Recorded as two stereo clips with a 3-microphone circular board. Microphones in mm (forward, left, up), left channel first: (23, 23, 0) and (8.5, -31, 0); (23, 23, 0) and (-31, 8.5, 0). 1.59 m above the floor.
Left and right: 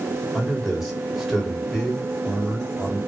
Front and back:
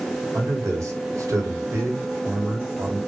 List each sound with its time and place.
0.3 s a man speaking: 160° left, 1.8 m